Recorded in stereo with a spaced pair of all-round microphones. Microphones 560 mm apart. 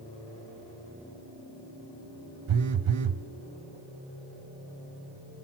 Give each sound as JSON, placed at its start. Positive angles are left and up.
{"t": 2.5, "sound": "a phone buzzing", "side_deg": -65, "distance_m": 0.6}